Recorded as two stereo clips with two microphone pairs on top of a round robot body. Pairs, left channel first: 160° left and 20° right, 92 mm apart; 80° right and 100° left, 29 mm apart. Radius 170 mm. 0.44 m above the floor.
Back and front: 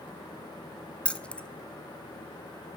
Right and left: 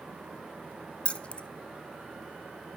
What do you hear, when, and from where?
1.1 s keys jangling: 130° right, 0.7 m